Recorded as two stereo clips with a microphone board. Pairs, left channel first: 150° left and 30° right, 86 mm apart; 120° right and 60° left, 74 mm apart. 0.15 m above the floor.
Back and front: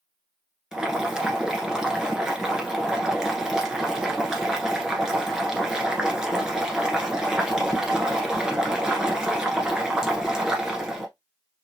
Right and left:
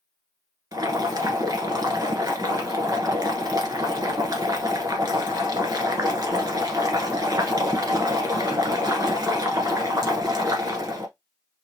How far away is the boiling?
About 1.2 m.